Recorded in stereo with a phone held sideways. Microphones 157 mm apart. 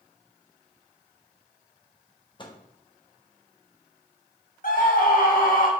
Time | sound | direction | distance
2.4 | a microwave | 30° left (ahead or behind) | 1.2 m
4.6 | a scream | 65° left (ahead or behind) | 1.6 m